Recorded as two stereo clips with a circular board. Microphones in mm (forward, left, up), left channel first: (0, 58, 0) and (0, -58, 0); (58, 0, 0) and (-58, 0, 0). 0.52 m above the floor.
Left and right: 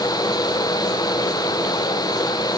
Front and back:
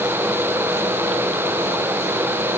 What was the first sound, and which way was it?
Only background noise.